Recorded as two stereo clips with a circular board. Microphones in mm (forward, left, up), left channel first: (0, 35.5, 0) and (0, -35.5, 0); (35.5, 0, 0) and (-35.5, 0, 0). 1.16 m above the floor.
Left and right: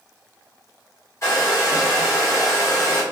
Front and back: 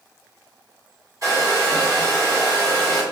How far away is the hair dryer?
About 1.4 m.